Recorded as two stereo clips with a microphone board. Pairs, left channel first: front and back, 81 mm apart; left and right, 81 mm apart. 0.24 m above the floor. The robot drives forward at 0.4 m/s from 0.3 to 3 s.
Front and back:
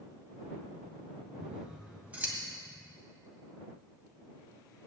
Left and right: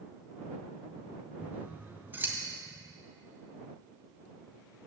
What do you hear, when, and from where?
1.4 s scissors: 110° right, 1.7 m; by 2.4 s 130° right, 1.8 m